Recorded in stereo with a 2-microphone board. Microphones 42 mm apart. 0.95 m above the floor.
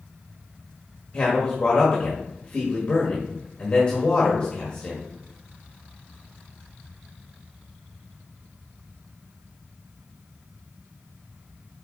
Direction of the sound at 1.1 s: 25° left (ahead or behind).